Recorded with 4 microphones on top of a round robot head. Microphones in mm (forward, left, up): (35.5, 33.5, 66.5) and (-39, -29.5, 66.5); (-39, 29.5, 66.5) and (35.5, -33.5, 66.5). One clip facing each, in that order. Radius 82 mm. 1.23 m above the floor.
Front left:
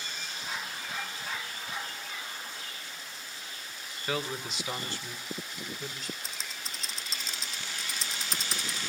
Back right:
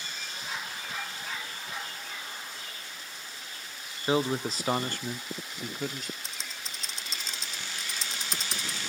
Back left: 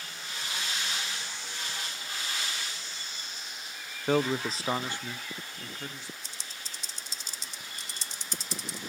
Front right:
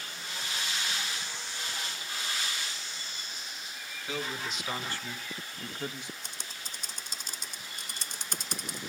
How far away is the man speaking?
About 0.8 m.